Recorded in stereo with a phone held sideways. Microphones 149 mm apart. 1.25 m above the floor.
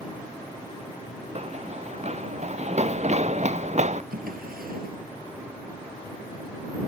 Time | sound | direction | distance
1.4 | running footsteps | 45° right (ahead or behind) | ?
4.1 | a drawer | 75° right (ahead or behind) | ?